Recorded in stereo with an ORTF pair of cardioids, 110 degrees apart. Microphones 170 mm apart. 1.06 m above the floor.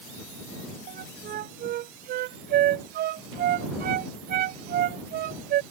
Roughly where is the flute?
Right.